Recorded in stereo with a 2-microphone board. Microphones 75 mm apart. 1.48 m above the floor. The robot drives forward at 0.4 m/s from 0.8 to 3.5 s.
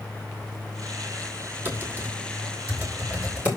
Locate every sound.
1.6 s typing on a keyboard: 25° right (ahead or behind), 2.5 m; by 3.5 s 20° right (ahead or behind), 3.5 m